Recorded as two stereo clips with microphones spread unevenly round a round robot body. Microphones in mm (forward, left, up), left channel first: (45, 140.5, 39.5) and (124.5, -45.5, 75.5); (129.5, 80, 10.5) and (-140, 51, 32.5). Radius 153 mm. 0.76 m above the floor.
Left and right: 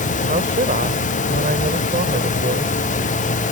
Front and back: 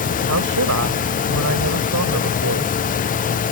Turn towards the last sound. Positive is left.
turn(degrees=-130)